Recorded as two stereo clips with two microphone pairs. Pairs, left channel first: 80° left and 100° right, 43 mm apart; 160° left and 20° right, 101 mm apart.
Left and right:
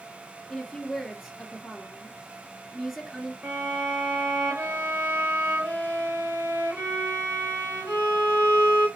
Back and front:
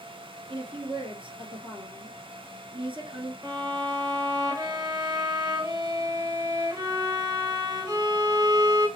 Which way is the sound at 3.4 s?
75° right.